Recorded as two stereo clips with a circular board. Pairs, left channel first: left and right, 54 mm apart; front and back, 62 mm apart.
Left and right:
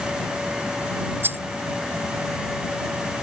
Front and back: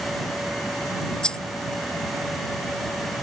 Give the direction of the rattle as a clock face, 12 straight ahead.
2 o'clock.